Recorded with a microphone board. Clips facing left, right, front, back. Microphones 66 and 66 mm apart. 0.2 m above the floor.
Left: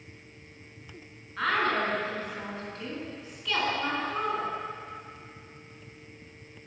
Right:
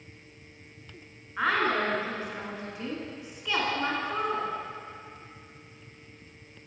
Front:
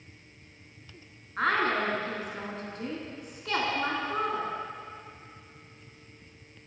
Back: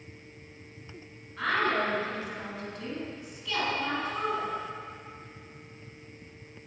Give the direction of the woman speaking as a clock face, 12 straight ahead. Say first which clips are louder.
Right 1 dB, front 1 dB; 1 o'clock.